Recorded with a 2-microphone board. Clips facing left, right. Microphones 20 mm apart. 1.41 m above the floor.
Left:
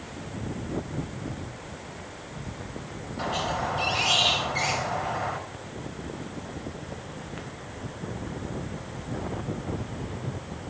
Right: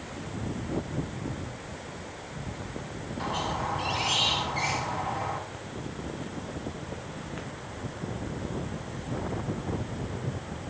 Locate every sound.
3.2 s a squeak: 70° left (ahead or behind), 4.5 m